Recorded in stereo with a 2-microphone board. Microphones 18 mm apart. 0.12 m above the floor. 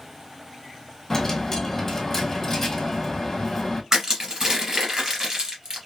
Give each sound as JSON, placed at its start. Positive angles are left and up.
{"t": 1.1, "sound": "a dropped coin", "side_deg": 20, "distance_m": 1.2}
{"t": 3.9, "sound": "crushing", "side_deg": -40, "distance_m": 2.0}